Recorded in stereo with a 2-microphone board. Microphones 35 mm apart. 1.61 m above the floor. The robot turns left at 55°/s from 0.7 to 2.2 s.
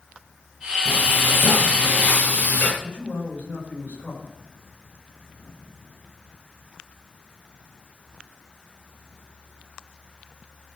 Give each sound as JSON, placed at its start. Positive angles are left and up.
{"t": 0.8, "sound": "frying", "azimuth_deg": 125, "distance_m": 7.0}
{"t": 2.8, "sound": "a man speaking", "side_deg": 65, "distance_m": 7.5}